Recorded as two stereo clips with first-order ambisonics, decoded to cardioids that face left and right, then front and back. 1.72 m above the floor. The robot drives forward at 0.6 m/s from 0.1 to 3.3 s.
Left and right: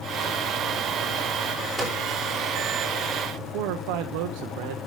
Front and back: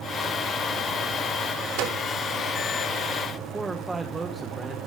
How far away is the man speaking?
About 1.1 m.